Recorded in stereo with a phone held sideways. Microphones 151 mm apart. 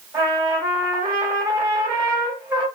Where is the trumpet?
20° right (ahead or behind), 2 m.